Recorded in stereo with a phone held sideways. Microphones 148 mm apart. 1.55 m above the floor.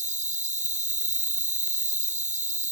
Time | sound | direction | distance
0.0 | an insect | 60° right (ahead or behind) | ?